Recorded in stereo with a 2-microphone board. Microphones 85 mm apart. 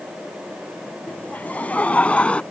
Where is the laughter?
20° left (ahead or behind); by 2.4 s 15° left (ahead or behind).